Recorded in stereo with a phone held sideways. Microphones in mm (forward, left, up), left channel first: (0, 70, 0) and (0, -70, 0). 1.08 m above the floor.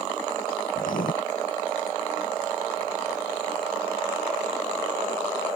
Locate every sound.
0.8 s writing: 75° left (ahead or behind)